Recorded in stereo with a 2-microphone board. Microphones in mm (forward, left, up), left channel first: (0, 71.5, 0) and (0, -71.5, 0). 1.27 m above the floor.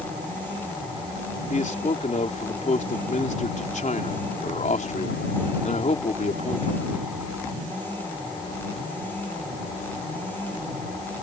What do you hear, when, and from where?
1.5 s a man speaking: 60° left (ahead or behind)